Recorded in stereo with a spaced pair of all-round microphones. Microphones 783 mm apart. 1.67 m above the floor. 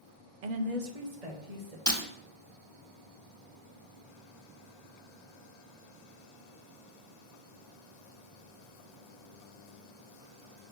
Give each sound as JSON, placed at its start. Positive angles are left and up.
{"t": 0.4, "sound": "a woman speaking", "side_deg": -70, "distance_m": 0.7}
{"t": 1.9, "sound": "breaking glass", "side_deg": 5, "distance_m": 1.7}